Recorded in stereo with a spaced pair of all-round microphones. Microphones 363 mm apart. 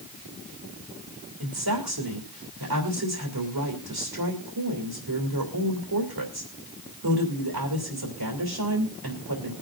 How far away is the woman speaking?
About 3 m.